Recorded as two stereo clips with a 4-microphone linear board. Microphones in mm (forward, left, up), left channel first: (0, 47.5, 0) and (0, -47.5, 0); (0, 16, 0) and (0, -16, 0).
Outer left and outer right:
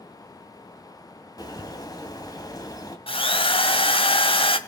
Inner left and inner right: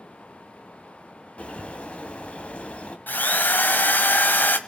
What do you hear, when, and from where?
1.4 s a bird: 45° left (ahead or behind), 2.5 m
3.1 s a drill: 75° left (ahead or behind), 1.8 m